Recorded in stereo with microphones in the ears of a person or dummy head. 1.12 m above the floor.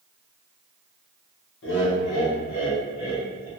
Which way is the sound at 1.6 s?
65° left (ahead or behind).